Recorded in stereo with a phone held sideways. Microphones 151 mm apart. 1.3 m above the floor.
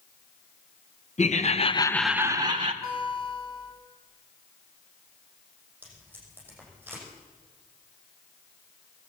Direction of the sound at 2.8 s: 40° left (ahead or behind).